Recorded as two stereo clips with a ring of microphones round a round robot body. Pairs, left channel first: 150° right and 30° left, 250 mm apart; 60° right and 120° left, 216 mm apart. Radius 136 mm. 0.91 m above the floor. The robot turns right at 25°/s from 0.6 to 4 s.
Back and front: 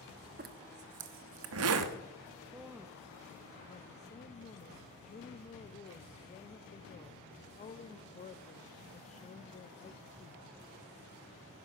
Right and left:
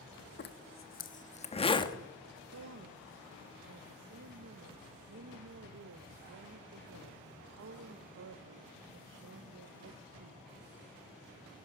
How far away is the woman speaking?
About 0.6 m.